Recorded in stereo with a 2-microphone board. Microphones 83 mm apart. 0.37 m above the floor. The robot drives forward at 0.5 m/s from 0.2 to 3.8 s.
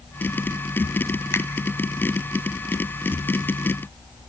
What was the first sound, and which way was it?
A finger snap, 30° left (ahead or behind).